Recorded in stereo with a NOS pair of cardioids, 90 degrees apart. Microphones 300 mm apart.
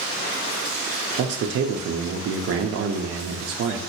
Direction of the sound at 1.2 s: 55° right.